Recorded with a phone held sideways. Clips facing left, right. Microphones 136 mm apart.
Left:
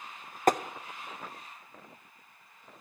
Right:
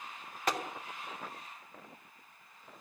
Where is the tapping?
45° left (ahead or behind), 0.6 m.